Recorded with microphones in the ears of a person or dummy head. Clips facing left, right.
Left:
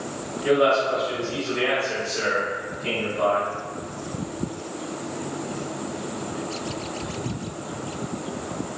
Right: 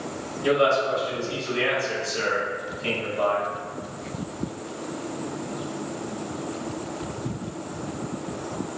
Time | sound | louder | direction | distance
0.4 | a man speaking | left 2 dB | 45° right (ahead or behind) | 1.9 m